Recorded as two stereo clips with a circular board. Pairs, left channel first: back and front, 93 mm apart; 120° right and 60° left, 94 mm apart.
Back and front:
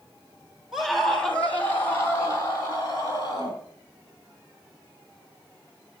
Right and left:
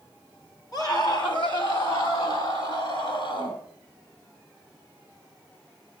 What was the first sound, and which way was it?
A scream, 85° right.